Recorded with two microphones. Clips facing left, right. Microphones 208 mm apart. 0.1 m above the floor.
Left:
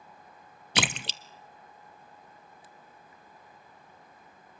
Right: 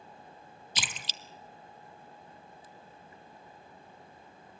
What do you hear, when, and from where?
0.8 s a splash: 70° left (ahead or behind), 0.6 m